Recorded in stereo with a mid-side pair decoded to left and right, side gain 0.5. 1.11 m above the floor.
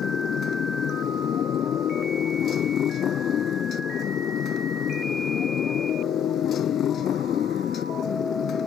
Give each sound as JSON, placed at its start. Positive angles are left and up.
{"t": 0.0, "sound": "a motorcycle", "azimuth_deg": 55}